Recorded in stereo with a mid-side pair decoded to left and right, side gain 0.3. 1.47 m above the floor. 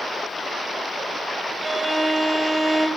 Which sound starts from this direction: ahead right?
A violin, at 1.6 s.